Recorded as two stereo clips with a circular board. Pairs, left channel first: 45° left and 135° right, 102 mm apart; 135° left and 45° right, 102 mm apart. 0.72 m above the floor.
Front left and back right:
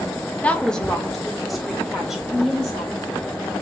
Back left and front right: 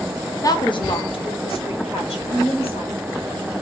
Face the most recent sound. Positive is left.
turn(degrees=140)